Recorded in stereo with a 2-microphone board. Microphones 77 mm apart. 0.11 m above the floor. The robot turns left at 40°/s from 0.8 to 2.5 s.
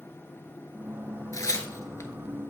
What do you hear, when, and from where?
1.3 s tearing paper: 45° left (ahead or behind), 0.7 m; by 2.1 s 35° left (ahead or behind), 0.7 m